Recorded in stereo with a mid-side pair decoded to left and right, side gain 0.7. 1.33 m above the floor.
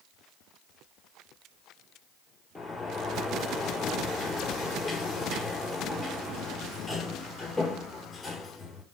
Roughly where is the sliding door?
Ahead.